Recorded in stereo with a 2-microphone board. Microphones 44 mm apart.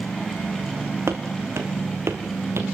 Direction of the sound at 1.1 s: 70° right (ahead or behind).